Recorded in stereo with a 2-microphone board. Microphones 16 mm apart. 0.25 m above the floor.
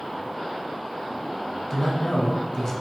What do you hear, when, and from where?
1.7 s a man speaking: 35° left (ahead or behind), 1.7 m